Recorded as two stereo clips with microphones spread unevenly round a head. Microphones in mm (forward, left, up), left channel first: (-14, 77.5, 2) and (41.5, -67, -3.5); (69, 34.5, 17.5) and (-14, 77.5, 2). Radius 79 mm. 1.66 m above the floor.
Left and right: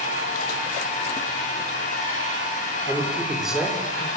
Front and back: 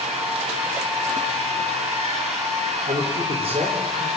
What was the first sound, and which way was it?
A machine running, 155° left.